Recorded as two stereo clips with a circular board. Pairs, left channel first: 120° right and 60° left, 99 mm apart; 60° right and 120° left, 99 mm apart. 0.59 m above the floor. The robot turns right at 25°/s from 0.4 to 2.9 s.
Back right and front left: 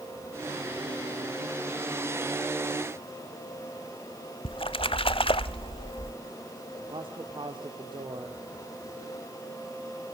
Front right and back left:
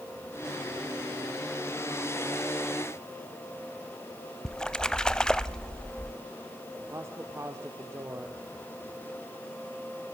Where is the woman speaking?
65° left, 1.5 m.